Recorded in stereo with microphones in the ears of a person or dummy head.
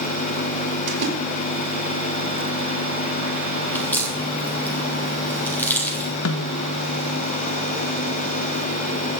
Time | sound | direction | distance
0.9 | a splash | 65° right (ahead or behind) | 4.5 m
3.7 | a crack | 10° left (ahead or behind) | 3 m
6.2 | a snare drum | 80° left | 1.8 m